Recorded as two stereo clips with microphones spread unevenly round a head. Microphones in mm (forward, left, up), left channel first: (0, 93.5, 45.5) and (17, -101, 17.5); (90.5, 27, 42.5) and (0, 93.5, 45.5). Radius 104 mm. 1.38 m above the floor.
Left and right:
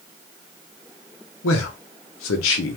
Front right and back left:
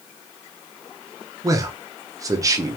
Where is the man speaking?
85° left, 0.6 m.